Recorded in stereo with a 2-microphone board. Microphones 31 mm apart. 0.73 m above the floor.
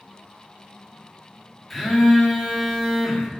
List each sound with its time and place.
1.7 s a phone buzzing: 5° right (ahead or behind), 1.8 m